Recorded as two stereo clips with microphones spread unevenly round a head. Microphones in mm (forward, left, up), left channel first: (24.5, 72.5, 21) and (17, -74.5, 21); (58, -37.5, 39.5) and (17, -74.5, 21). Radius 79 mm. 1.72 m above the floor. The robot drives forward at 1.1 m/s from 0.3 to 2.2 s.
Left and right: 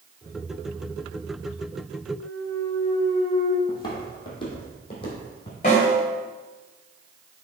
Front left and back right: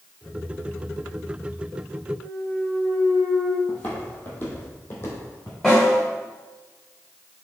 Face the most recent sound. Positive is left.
turn(degrees=115)